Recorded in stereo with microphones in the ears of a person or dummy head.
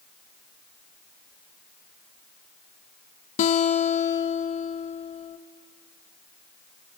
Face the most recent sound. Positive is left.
turn(degrees=35)  # may be behind; listen again after turning